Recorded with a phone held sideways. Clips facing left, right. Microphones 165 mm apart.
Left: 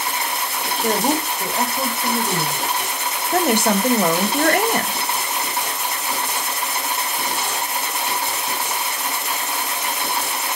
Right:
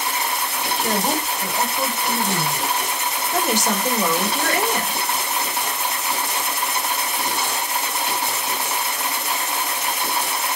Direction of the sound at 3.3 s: 55° left (ahead or behind).